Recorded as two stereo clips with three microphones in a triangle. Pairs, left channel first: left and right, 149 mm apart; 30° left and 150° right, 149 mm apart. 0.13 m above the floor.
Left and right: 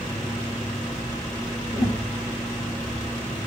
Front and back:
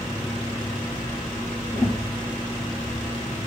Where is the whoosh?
30° right, 2.5 m.